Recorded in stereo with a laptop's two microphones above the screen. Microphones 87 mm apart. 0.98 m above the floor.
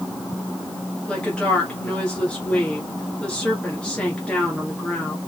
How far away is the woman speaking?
About 1.8 m.